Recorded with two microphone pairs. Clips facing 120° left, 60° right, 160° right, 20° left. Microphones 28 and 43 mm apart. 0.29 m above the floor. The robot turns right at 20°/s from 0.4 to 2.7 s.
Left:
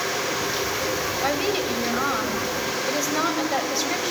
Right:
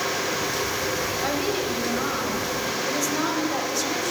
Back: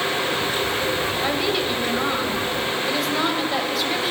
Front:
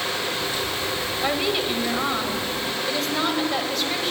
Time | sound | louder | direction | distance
1.2 | a woman speaking | left 3 dB, front 2 dB | 85° left | 1.1 m